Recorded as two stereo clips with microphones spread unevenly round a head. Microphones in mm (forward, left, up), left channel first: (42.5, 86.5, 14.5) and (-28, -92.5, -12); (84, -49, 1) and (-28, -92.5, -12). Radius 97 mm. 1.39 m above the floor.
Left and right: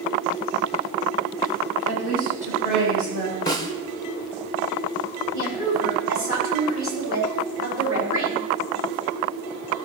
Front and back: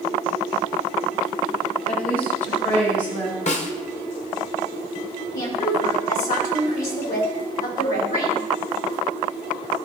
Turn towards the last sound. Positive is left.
turn(degrees=25)